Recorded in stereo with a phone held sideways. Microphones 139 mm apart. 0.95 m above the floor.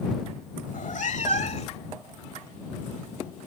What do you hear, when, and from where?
0.7 s a cat meowing: 65° left (ahead or behind); by 1.8 s 45° left (ahead or behind)